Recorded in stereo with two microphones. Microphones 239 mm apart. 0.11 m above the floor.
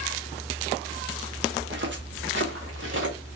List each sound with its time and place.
1.6 s footsteps: 45° right (ahead or behind), 1.3 m; by 3.1 s 50° right (ahead or behind), 2 m